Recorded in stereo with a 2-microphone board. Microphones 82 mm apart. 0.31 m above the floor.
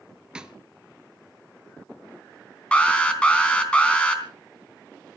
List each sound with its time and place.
0.3 s a snare drum: 10° right (ahead or behind), 1.1 m
2.7 s an alarm: 15° left (ahead or behind), 3.5 m